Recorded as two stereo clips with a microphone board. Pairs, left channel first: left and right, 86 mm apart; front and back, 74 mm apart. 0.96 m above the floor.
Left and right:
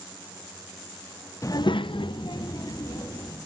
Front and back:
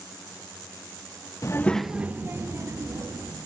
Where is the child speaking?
40° left, 0.6 m; by 3.4 s 135° left, 2 m.